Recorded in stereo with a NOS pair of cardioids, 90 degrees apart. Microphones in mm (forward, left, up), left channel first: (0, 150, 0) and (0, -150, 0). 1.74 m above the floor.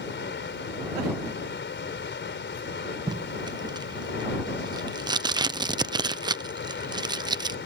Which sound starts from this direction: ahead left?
Running water, at 0.0 s.